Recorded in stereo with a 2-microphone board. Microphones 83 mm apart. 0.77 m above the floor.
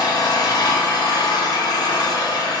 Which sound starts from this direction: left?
An engine running, at 0.0 s.